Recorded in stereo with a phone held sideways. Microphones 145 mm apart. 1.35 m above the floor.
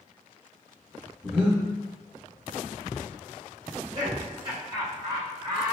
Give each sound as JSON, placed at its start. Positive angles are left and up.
{"t": 1.2, "sound": "breathing", "side_deg": -10, "distance_m": 1.5}
{"t": 3.7, "sound": "laughter", "side_deg": -35, "distance_m": 2.0}